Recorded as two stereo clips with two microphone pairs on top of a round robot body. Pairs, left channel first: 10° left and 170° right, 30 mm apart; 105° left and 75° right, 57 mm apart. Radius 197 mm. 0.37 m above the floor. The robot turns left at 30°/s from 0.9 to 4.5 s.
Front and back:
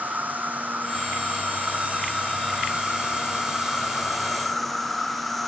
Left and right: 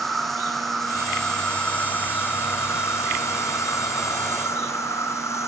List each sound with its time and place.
0.0 s an insect: 165° right, 1.4 m; by 5.5 s 85° left, 1.4 m